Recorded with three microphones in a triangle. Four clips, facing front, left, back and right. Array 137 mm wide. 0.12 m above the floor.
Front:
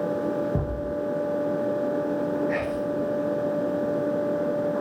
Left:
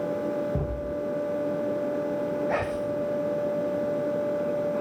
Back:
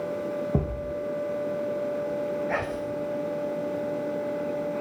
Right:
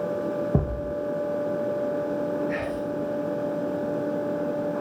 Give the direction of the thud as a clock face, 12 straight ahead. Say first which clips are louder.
Right 3 dB, front 1 dB; 4 o'clock.